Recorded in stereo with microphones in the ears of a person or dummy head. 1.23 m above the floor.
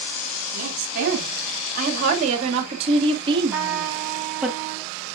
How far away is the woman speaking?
About 3 m.